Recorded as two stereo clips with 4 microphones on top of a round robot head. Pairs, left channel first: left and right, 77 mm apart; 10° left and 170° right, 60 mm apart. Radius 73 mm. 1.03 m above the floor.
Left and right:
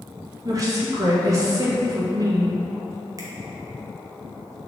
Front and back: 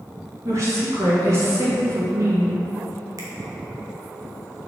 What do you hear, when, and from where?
0.5 s a woman speaking: 135° right, 1.8 m
3.2 s a finger snap: 140° right, 1.0 m